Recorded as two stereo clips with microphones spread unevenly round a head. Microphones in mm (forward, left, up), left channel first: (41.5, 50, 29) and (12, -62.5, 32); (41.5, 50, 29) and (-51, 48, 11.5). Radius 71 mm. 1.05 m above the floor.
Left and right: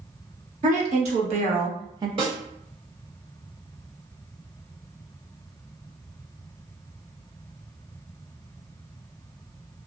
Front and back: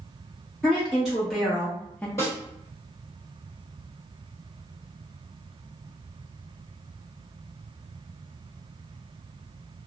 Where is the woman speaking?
95° right, 1.5 m; by 2.1 s 80° right, 0.6 m.